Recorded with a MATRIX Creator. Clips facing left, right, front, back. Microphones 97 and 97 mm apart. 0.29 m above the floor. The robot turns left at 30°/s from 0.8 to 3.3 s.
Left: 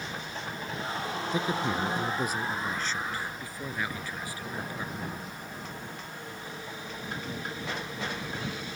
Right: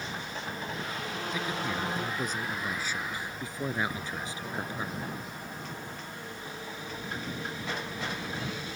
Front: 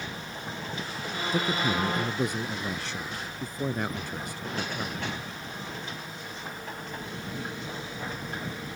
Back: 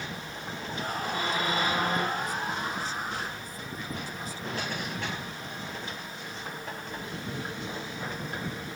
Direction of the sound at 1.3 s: 35° left.